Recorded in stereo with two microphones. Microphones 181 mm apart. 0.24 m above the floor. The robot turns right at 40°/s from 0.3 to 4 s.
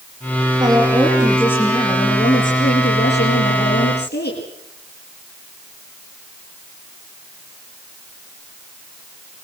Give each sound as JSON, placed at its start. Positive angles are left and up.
{"t": 0.6, "sound": "a woman speaking", "azimuth_deg": -25, "distance_m": 5.5}